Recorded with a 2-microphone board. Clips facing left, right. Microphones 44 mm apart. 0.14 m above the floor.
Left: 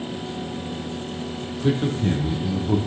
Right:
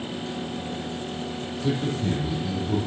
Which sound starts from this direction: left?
A man speaking, at 1.6 s.